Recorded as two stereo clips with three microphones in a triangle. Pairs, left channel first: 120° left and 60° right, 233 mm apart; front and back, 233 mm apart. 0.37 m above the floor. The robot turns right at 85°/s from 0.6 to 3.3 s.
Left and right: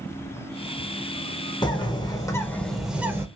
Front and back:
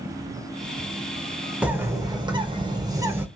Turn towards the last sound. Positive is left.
turn(degrees=-110)